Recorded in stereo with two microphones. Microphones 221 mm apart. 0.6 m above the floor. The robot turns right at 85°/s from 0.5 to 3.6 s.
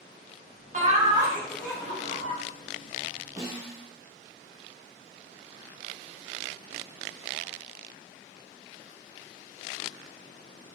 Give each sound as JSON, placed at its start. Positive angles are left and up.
{"t": 0.7, "sound": "laughter", "azimuth_deg": -65, "distance_m": 0.8}
{"t": 3.4, "sound": "a snare drum", "side_deg": -15, "distance_m": 1.1}